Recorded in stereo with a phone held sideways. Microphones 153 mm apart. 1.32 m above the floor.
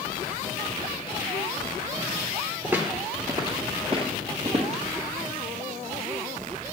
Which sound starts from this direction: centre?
Footsteps, at 2.6 s.